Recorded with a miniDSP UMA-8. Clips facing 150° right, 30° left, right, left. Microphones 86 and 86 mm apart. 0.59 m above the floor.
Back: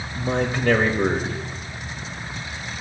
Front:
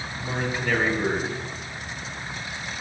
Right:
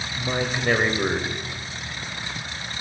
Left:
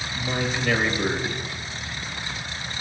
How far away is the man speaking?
About 2.0 m.